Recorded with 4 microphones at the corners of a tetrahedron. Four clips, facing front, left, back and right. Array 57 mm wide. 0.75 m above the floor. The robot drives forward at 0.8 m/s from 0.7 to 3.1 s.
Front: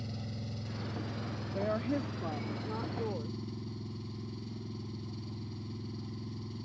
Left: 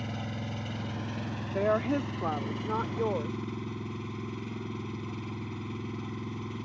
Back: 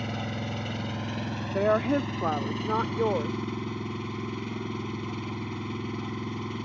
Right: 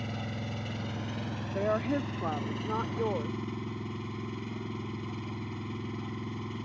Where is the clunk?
I don't hear a clunk.